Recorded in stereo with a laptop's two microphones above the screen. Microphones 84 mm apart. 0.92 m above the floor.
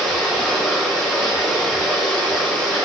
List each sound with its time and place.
0.0 s running water: 10° left (ahead or behind), 7 m